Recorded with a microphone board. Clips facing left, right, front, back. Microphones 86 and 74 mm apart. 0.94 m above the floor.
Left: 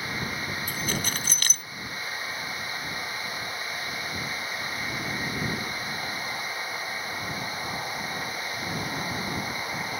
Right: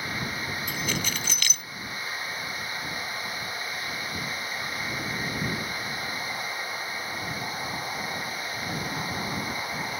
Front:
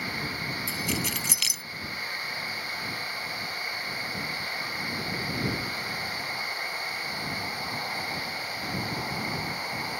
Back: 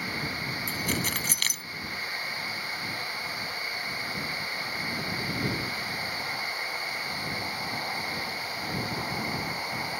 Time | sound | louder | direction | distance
0.7 | keys jangling | even, back 1 dB | 140° left | ?